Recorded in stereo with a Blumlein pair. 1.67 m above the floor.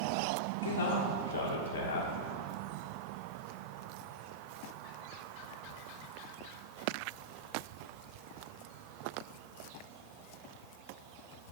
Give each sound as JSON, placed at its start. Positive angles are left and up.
{"t": 0.6, "sound": "a man speaking", "azimuth_deg": 70, "distance_m": 0.7}